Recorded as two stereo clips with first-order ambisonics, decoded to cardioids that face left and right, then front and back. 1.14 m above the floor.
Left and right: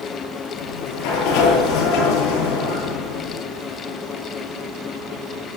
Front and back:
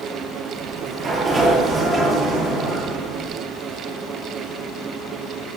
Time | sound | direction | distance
0.6 | a sliding door | 105° left | 8 m